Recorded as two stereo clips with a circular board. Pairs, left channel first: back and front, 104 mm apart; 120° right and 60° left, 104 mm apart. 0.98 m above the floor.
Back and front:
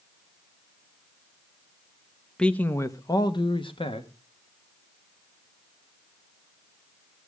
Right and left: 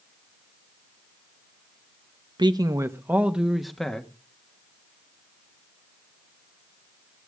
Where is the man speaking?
100° left, 0.9 m; by 4.1 s 155° left, 1.4 m.